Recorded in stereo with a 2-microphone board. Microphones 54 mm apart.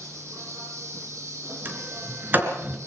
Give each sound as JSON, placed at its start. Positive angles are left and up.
{"t": 0.0, "sound": "an insect", "side_deg": -60, "distance_m": 9.0}
{"t": 1.6, "sound": "a sliding door", "side_deg": -35, "distance_m": 3.5}